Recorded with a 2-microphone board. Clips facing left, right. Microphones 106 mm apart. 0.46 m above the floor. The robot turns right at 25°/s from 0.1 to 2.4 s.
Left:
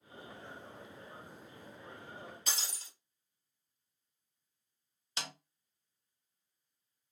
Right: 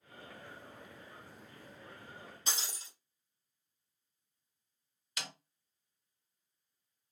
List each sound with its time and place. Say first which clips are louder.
2.5 s breaking glass: right 4 dB; 30° right (ahead or behind), 2 m
5.2 s a snare drum: left 2 dB; 30° left (ahead or behind), 0.7 m